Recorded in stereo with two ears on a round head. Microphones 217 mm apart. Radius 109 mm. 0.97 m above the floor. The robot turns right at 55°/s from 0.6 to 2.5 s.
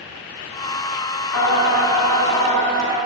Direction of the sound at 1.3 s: 100° left.